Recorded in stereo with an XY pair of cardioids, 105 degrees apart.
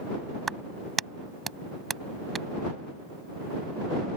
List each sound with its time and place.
0.5 s a clap: 30° right